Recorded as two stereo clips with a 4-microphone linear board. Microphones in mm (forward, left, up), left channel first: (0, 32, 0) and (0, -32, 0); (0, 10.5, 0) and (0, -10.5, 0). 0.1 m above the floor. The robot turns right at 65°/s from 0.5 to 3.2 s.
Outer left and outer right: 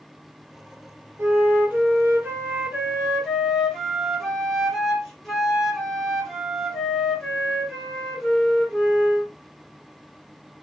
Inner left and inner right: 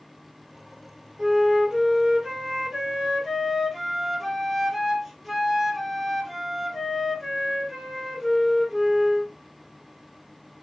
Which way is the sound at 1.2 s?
120° right.